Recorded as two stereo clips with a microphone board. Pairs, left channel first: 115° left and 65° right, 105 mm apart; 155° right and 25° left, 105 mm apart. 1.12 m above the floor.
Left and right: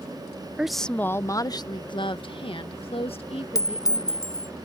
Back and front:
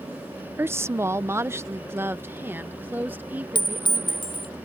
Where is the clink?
165° left.